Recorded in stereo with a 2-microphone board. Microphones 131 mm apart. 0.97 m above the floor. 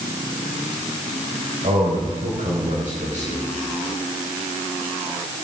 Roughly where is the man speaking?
Right.